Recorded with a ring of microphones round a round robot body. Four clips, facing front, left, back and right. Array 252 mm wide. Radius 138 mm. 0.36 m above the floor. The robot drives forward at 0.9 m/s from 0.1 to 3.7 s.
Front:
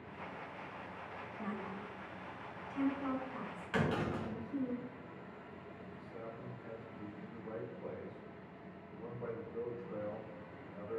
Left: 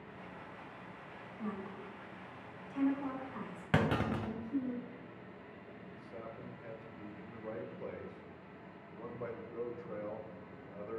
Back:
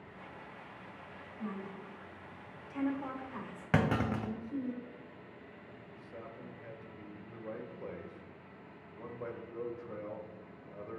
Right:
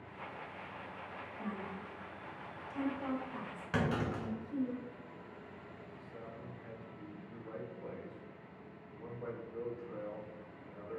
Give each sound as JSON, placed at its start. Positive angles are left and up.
{"t": 1.4, "sound": "a woman speaking", "azimuth_deg": -10, "distance_m": 1.4}
{"t": 3.7, "sound": "a clunk", "azimuth_deg": 150, "distance_m": 0.9}
{"t": 5.9, "sound": "a man speaking", "azimuth_deg": 135, "distance_m": 1.4}